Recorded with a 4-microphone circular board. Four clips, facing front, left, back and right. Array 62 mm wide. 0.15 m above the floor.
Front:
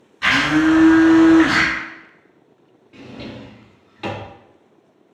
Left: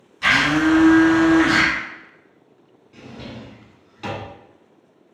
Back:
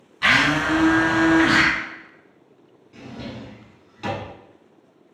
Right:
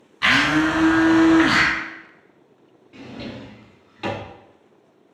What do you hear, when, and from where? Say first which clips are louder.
0.2 s a blender: left 1 dB, front 3 dB; 110° right, 1.8 m
2.9 s a drawer: right 2 dB, front 1 dB; 40° right, 0.9 m